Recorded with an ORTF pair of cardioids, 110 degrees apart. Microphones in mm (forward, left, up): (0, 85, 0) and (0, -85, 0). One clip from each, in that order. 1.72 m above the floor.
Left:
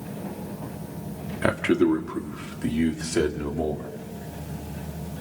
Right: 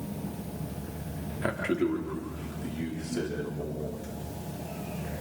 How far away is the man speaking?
About 3 m.